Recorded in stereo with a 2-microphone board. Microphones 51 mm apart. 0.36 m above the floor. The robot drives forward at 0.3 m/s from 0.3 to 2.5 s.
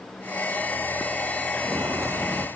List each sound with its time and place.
1.6 s footsteps: 70° right (ahead or behind), 0.9 m; by 2.5 s 65° right (ahead or behind), 0.9 m